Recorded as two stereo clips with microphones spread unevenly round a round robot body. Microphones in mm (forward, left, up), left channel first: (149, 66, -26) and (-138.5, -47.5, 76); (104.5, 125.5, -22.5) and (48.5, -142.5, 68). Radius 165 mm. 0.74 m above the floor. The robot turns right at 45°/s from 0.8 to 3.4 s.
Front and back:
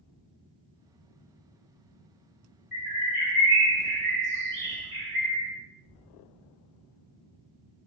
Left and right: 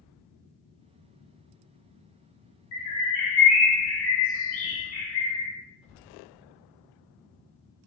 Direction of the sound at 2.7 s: 125° left.